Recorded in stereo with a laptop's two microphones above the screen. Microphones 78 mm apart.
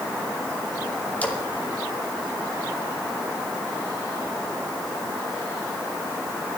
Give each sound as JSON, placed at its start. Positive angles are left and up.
{"t": 1.2, "sound": "a splash", "side_deg": 20, "distance_m": 2.5}